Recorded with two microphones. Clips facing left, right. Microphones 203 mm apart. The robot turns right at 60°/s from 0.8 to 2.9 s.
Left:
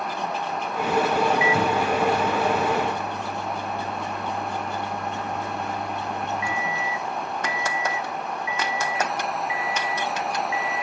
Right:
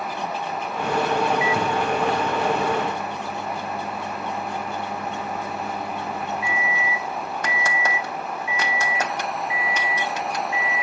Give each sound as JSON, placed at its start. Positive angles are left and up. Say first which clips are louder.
{"t": 1.4, "sound": "a microwave", "louder": "left 1 dB", "side_deg": 20, "distance_m": 1.0}